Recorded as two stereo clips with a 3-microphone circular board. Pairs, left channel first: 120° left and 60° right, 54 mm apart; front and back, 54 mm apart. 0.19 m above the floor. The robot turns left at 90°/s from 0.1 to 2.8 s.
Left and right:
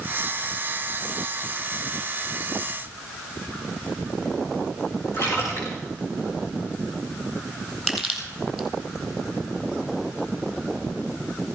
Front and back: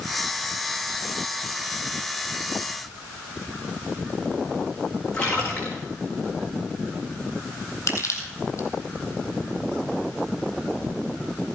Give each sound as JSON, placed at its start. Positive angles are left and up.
{"t": 5.1, "sound": "a splash", "azimuth_deg": 80, "distance_m": 5.5}
{"t": 7.9, "sound": "crushing", "azimuth_deg": 30, "distance_m": 4.0}